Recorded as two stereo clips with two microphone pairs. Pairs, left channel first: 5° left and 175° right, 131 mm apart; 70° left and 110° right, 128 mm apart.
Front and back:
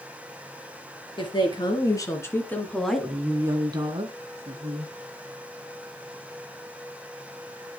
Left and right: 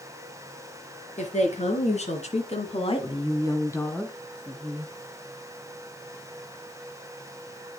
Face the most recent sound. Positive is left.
turn(degrees=170)